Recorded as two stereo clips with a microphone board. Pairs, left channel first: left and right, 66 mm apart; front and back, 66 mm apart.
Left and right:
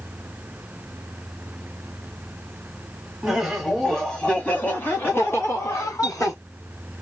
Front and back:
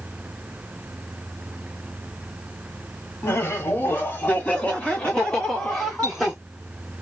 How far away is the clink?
About 1.9 m.